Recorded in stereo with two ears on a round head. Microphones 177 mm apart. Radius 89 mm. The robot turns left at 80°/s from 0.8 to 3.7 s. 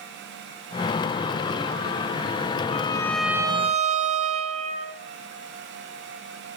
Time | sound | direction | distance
2.7 | a violin | 40° left | 1.2 m